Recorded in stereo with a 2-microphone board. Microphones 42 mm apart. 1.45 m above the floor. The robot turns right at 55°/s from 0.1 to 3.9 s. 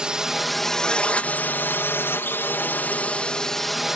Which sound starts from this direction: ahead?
A drone, at 0.0 s.